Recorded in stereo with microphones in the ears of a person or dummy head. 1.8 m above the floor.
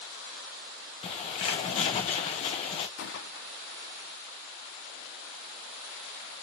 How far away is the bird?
About 1.1 m.